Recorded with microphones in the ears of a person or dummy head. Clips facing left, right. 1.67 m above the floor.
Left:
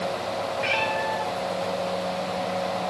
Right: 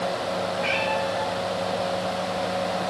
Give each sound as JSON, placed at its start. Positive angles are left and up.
{"t": 0.6, "sound": "a cat meowing", "side_deg": 65, "distance_m": 2.0}